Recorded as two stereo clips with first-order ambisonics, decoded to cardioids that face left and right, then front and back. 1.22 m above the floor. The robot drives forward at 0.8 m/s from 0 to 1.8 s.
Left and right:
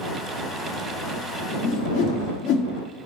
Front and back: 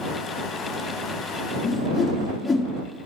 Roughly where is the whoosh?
Left.